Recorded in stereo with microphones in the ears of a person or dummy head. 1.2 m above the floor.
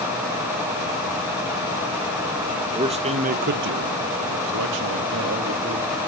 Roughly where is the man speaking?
Right.